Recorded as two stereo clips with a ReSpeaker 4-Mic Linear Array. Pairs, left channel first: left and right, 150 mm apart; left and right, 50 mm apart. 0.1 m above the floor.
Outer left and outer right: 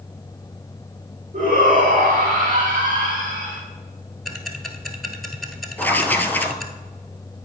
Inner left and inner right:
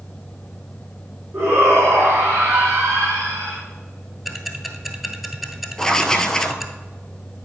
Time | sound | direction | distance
1.3 | a shout | 60° right (ahead or behind) | 4 m
4.2 | ticking | centre (ahead or behind) | 1.1 m
5.8 | writing | 10° left (ahead or behind) | 0.8 m